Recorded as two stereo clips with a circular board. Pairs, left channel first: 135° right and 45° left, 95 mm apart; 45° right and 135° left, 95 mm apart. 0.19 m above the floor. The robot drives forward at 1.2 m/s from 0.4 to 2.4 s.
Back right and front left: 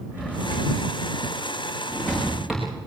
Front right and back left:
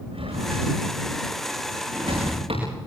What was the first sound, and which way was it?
A drawer, 115° left.